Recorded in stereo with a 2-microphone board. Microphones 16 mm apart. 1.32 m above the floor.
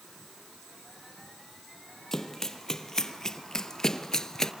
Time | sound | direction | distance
2.1 | running footsteps | 25° left (ahead or behind) | 3 m